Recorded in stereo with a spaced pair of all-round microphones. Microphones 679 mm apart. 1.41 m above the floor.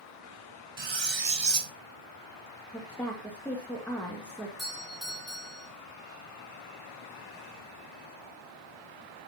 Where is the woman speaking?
5° left (ahead or behind), 2 m.